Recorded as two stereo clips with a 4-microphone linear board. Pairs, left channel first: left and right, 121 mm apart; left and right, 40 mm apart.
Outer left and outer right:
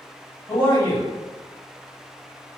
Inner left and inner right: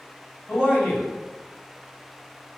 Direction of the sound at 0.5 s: 40° left (ahead or behind).